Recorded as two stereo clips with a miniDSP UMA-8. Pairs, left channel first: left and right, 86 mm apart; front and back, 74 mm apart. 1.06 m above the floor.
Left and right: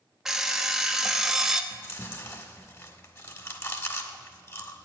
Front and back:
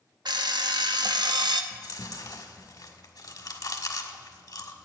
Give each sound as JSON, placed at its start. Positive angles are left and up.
{"t": 0.2, "sound": "an alarm clock", "azimuth_deg": -175, "distance_m": 0.8}
{"t": 1.7, "sound": "chewing", "azimuth_deg": 35, "distance_m": 1.3}